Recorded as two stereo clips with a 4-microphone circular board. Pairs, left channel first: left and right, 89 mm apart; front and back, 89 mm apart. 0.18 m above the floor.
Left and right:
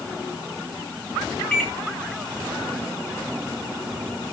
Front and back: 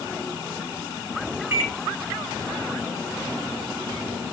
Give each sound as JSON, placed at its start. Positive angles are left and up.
{"t": 1.5, "sound": "a microwave", "azimuth_deg": 160, "distance_m": 1.3}